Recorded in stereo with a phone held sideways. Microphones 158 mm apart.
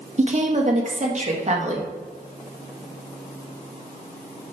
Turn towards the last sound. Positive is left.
turn(degrees=-45)  # may be behind; listen again after turning